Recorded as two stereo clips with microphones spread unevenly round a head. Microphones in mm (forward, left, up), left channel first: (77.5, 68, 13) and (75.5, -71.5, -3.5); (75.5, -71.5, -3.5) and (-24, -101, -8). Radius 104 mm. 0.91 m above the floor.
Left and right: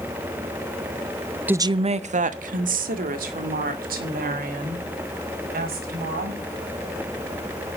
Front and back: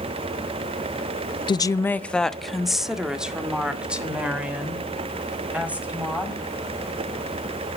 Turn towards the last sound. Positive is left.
turn(degrees=-90)